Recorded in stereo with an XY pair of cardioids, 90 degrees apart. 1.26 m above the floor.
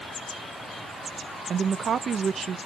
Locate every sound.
1.5 s a woman speaking: 60° right, 0.6 m